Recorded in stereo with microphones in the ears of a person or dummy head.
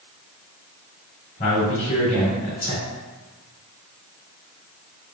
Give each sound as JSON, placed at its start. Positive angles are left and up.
{"t": 1.4, "sound": "a man speaking", "side_deg": 40, "distance_m": 1.9}